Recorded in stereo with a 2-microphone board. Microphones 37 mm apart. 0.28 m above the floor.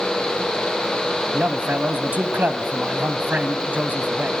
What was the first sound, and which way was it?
A man speaking, 50° right (ahead or behind).